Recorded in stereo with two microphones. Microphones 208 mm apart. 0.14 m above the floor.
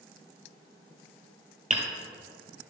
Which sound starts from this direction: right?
Hammering, at 1.7 s.